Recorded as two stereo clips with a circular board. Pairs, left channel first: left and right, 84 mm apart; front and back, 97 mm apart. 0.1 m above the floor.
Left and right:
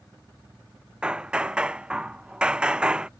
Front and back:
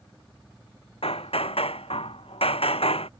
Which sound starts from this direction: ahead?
Hammering, at 1.0 s.